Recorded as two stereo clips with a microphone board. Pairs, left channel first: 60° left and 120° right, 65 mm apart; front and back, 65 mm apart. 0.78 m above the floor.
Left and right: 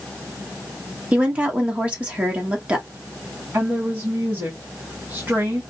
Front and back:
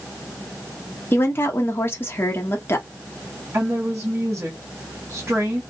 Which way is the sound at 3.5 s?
160° right.